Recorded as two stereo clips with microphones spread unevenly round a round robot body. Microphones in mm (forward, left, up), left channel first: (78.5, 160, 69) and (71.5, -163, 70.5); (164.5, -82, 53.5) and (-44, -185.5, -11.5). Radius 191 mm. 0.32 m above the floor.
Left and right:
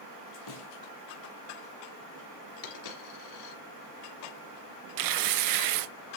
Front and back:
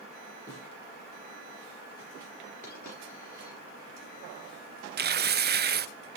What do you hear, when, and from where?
0.5 s a snare drum: 110° left, 2.5 m
2.6 s a dropped coin: 115° left, 3.5 m
5.0 s tearing paper: 110° right, 0.6 m